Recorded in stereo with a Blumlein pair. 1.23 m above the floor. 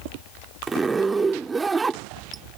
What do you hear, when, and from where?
0.7 s a zipper: 10° right